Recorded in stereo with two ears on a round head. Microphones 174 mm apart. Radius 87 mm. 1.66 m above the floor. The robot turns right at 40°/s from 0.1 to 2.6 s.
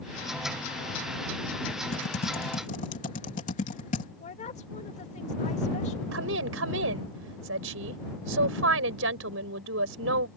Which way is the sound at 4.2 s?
35° left (ahead or behind).